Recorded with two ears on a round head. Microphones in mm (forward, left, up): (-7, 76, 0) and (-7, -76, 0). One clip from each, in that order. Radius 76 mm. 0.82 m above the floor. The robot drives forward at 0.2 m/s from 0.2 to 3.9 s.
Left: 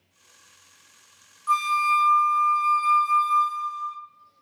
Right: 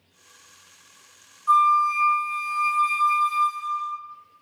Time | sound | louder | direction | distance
1.5 | a flute | right 4 dB | 70° left (ahead or behind) | 1.4 m